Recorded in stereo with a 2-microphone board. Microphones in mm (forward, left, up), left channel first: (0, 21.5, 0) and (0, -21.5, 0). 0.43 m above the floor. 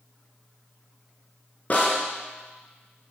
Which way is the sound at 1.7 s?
40° left (ahead or behind).